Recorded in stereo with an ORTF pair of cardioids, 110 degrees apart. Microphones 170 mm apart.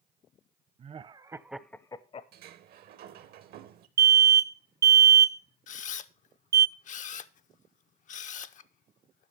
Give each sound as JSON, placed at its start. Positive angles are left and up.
{"t": 0.8, "sound": "laughter", "azimuth_deg": -40, "distance_m": 0.9}
{"t": 2.3, "sound": "a sliding door", "azimuth_deg": -65, "distance_m": 1.1}
{"t": 4.0, "sound": "an alarm", "azimuth_deg": -20, "distance_m": 0.5}
{"t": 5.7, "sound": "a camera shutter", "azimuth_deg": 45, "distance_m": 0.6}